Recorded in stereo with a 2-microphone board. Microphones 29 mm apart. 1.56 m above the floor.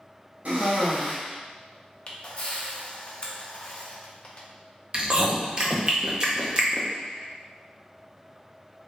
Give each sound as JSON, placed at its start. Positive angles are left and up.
{"t": 0.5, "sound": "a cough", "side_deg": -60, "distance_m": 0.9}
{"t": 2.1, "sound": "a camera shutter", "side_deg": 40, "distance_m": 0.6}
{"t": 4.9, "sound": "chewing", "side_deg": -30, "distance_m": 0.6}